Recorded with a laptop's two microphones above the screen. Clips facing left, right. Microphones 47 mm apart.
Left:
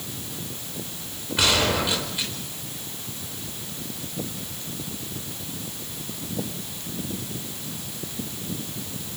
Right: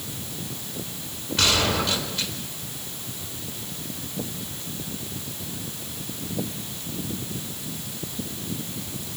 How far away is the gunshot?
About 4.5 m.